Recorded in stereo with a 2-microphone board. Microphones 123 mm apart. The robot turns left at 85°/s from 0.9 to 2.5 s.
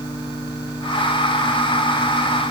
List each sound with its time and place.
Only background noise.